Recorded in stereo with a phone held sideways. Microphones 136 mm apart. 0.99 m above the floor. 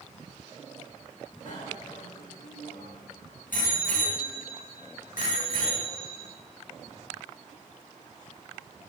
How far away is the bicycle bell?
About 5.5 m.